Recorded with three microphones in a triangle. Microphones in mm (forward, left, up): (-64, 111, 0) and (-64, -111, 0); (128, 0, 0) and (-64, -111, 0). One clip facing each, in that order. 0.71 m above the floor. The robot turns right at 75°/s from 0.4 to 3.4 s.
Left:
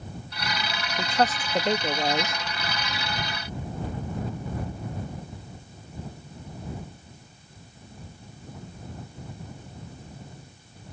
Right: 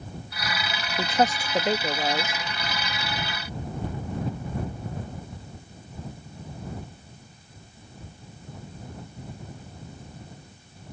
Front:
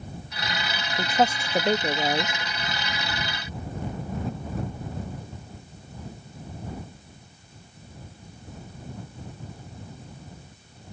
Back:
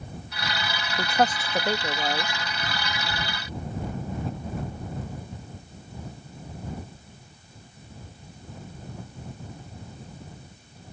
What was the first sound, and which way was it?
A woman speaking, 60° right.